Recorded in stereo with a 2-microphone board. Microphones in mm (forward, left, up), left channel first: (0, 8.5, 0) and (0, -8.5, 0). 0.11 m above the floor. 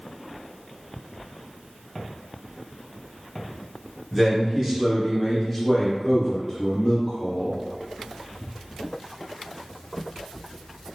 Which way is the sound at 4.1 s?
15° right (ahead or behind).